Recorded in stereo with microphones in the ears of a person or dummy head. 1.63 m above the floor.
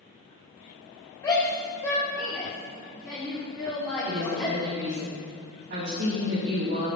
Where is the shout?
15° left (ahead or behind), 2.5 m; by 4.5 s 5° left (ahead or behind), 6 m.